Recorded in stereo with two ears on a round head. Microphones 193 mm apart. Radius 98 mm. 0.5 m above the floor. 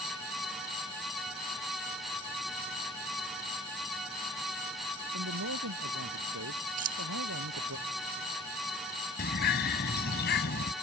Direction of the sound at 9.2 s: 50° left (ahead or behind).